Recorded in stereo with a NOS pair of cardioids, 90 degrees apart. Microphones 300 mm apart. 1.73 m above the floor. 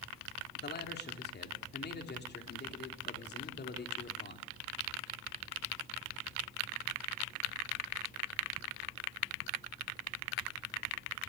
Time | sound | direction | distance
0.6 | a man speaking | 35° left | 3.5 m